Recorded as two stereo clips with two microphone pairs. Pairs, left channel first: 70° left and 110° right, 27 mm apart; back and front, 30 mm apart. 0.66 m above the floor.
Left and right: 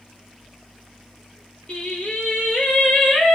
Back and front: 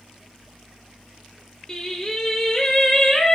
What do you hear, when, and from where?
1.7 s singing: 105° left, 2.5 m